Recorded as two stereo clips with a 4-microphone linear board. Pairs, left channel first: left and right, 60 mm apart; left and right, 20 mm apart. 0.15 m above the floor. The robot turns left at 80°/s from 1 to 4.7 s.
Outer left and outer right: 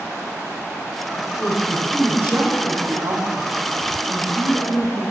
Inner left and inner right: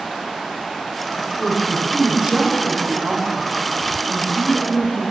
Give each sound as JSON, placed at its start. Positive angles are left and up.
{"t": 1.2, "sound": "a woman speaking", "azimuth_deg": 45, "distance_m": 8.0}